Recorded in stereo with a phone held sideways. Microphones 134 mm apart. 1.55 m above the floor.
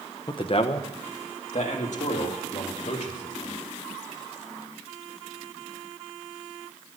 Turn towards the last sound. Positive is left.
turn(degrees=70)  # may be behind; listen again after turning